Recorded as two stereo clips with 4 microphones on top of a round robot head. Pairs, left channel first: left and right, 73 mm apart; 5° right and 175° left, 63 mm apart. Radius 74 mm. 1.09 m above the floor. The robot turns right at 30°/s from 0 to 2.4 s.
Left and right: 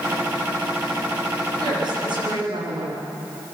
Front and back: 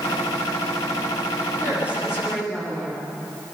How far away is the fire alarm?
I don't hear a fire alarm.